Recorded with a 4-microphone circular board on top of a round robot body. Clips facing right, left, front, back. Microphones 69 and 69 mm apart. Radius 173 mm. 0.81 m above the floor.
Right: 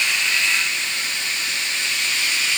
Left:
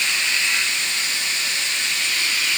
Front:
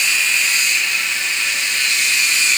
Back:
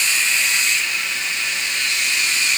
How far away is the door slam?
I don't hear a door slam.